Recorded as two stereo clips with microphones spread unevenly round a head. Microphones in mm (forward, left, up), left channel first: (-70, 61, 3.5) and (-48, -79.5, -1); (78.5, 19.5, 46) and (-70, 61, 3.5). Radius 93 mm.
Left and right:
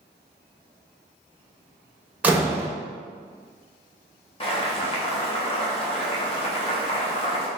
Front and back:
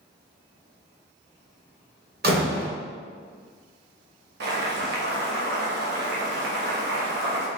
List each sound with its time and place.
2.2 s a door slam: 160° right, 1.2 m
4.4 s boiling: 145° left, 1.3 m